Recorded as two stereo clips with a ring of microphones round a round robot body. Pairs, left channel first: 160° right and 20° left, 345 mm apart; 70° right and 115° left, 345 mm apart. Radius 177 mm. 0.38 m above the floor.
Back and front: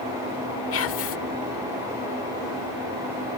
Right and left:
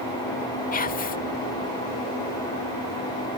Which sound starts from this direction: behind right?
Whispering, at 0.7 s.